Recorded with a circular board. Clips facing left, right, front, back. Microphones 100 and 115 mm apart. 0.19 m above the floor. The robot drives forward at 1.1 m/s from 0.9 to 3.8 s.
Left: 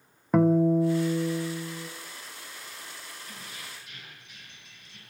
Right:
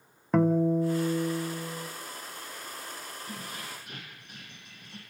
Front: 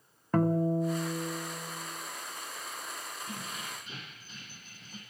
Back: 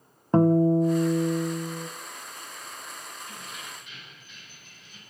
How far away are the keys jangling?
About 6.5 m.